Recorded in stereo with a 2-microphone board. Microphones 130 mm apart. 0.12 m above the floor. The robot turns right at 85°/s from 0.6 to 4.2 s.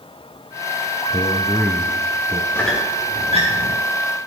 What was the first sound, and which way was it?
A man speaking, 130° left.